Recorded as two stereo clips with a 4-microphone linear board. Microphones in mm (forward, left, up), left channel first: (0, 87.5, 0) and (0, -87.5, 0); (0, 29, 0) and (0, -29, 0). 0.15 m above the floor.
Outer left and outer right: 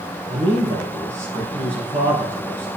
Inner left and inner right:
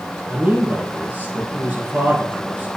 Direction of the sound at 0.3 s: 35° right (ahead or behind).